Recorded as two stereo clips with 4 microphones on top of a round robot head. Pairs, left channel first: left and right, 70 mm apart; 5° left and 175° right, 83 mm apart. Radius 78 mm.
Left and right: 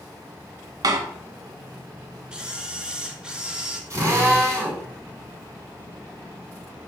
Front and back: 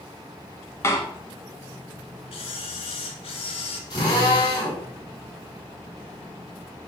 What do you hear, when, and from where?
0.8 s a door slam: 60° right, 1.7 m
2.3 s a camera shutter: 15° right, 2 m
3.9 s a drill: 40° right, 7.5 m